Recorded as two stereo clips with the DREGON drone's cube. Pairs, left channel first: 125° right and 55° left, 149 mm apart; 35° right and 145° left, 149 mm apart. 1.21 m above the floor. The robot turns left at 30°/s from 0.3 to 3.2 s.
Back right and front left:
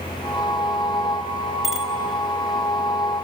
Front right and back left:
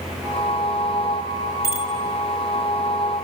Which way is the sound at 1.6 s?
145° left.